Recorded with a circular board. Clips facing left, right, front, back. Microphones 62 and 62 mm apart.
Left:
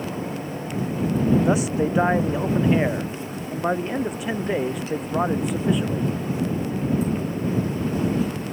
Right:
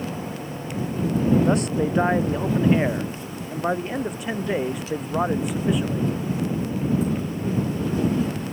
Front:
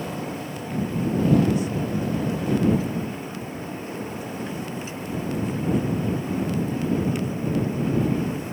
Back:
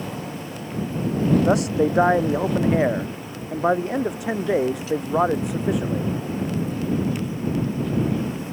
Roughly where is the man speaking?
Behind.